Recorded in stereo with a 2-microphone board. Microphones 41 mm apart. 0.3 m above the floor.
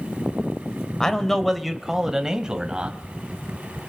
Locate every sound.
1.0 s a man speaking: 15° left (ahead or behind), 1.0 m; by 3.0 s 20° right (ahead or behind), 1.6 m